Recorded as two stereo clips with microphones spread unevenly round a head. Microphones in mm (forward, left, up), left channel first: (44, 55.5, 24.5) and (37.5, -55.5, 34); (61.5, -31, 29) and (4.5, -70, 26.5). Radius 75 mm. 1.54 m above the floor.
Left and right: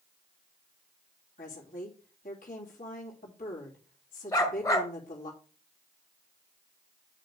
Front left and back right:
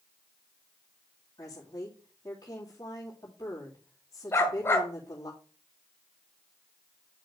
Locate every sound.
1.4 s a woman speaking: 100° left, 3 m
4.3 s a dog barking: 40° left, 1.4 m